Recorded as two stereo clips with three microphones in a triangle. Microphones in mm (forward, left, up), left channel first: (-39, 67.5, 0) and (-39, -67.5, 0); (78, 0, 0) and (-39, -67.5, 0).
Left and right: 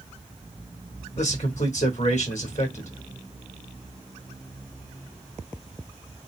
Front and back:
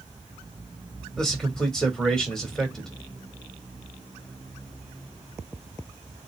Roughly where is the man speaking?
Behind left.